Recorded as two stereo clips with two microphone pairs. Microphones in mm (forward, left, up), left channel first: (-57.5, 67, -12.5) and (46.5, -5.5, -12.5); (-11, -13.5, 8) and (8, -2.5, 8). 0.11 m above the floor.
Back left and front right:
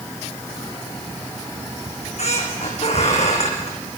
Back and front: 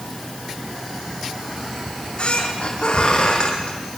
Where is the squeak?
175° left, 5 m.